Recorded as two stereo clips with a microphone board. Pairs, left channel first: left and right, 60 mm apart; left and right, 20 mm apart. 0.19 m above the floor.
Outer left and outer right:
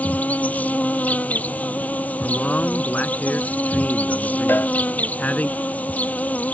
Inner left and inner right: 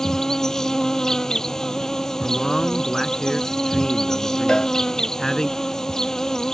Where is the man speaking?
25° left (ahead or behind).